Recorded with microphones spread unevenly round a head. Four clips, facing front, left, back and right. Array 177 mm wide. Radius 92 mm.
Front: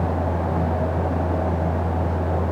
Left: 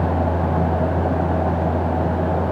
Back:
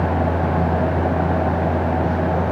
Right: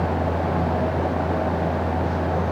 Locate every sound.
Only background noise.